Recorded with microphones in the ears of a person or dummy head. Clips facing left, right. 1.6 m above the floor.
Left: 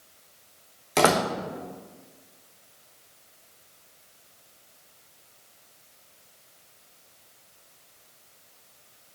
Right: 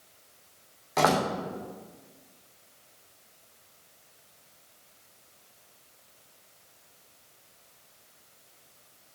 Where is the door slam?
35° left (ahead or behind), 1.0 m.